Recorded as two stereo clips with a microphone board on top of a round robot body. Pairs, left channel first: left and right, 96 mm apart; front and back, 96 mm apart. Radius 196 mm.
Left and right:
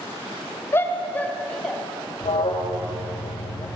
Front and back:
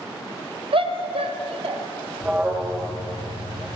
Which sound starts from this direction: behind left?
A shout, at 0.7 s.